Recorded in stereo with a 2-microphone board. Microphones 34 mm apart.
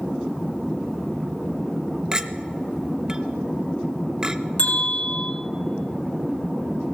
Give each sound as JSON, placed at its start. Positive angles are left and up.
{"t": 2.1, "sound": "a clink", "side_deg": -20, "distance_m": 0.6}
{"t": 4.6, "sound": "a bell", "side_deg": 40, "distance_m": 4.0}